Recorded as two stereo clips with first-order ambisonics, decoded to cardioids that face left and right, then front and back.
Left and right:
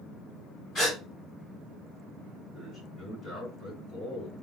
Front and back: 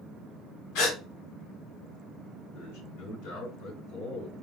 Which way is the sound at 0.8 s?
30° left.